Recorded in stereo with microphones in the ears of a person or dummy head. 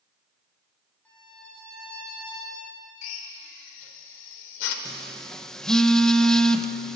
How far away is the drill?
About 3 m.